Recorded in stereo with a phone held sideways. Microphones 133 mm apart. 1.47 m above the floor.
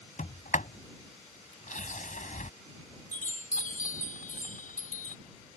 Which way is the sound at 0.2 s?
70° left (ahead or behind).